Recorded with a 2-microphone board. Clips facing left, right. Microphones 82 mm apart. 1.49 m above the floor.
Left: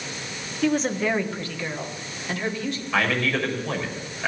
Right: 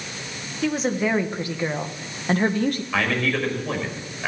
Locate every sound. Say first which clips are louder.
0.6 s a woman speaking: even; centre (ahead or behind), 1.5 m; by 2.8 s 50° right (ahead or behind), 1.4 m
2.9 s a man speaking: even; centre (ahead or behind), 5.5 m